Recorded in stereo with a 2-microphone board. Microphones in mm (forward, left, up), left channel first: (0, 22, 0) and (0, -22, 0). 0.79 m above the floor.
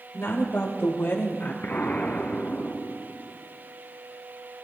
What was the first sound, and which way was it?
A woman speaking, 65° left (ahead or behind).